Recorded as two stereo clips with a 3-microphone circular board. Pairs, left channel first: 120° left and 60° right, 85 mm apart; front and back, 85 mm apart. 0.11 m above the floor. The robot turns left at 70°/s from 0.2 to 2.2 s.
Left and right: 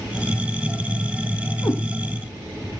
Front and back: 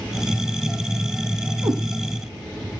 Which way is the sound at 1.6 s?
160° left.